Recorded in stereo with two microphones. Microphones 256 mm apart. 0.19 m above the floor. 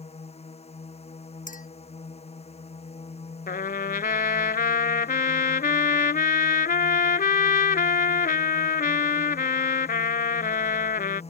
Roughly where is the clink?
Left.